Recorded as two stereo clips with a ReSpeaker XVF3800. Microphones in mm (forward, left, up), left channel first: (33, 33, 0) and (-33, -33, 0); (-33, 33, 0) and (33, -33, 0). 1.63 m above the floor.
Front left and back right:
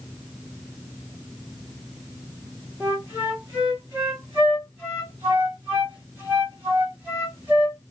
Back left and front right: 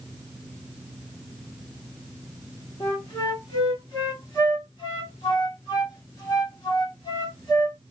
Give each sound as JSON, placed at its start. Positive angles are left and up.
{"t": 2.8, "sound": "a flute", "azimuth_deg": 160, "distance_m": 1.7}